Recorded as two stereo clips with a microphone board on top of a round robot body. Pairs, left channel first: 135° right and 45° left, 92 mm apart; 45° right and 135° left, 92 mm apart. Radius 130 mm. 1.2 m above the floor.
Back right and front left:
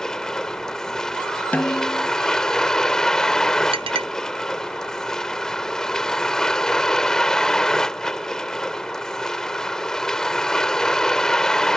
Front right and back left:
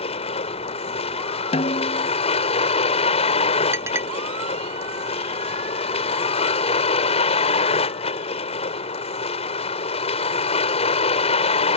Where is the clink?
70° left.